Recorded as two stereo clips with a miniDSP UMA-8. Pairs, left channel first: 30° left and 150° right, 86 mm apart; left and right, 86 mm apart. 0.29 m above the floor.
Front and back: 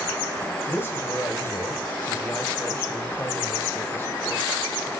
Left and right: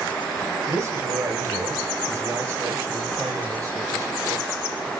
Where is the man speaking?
30° right, 4.5 m.